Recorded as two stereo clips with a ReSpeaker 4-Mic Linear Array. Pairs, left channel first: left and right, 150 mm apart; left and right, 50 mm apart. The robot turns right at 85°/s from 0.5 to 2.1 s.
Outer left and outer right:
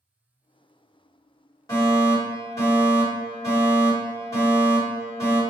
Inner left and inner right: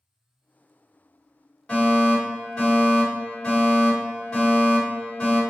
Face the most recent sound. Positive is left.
turn(degrees=20)  # may be behind; listen again after turning